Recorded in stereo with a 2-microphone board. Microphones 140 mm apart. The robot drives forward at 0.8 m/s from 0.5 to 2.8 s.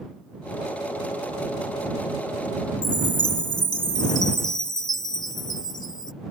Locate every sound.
2.8 s a chime: 30° left (ahead or behind)